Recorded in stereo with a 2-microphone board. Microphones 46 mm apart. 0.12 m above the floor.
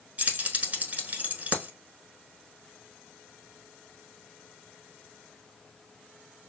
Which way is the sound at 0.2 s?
35° right (ahead or behind).